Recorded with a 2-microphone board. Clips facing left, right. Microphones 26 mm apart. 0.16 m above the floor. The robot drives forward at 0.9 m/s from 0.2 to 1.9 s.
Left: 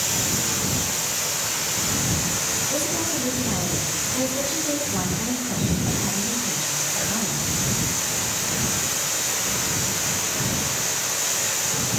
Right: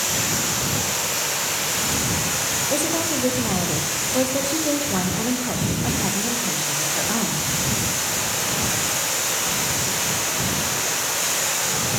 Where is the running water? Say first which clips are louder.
Right 2 dB; 50° right (ahead or behind), 10 m; by 12.0 s 60° right (ahead or behind), 9 m.